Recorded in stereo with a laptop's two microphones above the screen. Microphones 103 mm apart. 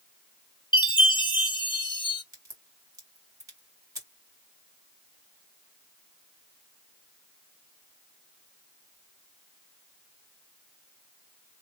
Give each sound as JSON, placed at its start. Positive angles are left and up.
{"t": 0.7, "sound": "a chime", "side_deg": 50, "distance_m": 0.9}
{"t": 2.3, "sound": "a crack", "side_deg": -30, "distance_m": 1.9}